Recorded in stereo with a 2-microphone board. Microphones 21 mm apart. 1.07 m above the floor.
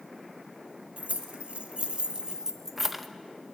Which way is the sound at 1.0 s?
70° right (ahead or behind).